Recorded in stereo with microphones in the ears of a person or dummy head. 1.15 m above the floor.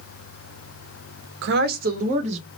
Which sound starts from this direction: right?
A woman speaking, at 1.4 s.